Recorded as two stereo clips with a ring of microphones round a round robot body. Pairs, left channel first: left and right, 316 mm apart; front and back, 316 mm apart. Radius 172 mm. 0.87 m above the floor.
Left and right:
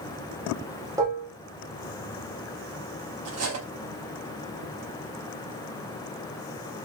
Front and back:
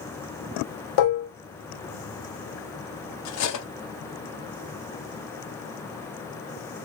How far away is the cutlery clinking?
About 0.7 m.